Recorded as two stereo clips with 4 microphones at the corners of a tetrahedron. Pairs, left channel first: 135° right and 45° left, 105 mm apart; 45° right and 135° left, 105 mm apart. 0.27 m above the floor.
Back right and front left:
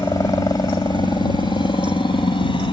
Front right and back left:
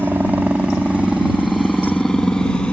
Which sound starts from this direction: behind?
A helicopter, at 0.0 s.